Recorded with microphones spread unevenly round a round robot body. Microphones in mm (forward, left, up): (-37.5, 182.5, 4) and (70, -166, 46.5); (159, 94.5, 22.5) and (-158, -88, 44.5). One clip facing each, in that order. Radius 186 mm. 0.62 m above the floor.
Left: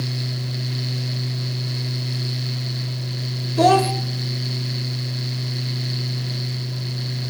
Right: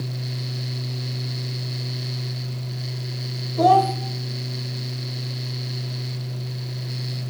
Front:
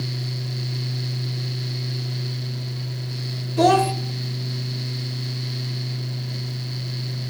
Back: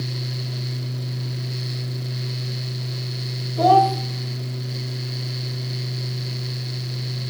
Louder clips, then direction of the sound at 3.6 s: Left 2 dB, even; 70° left.